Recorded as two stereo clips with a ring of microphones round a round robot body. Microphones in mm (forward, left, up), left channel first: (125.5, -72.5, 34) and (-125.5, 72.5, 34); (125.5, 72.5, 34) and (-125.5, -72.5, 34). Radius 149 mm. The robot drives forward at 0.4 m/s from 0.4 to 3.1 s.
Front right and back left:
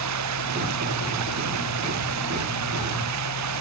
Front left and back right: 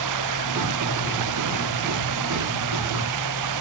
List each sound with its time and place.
0.0 s running water: 175° right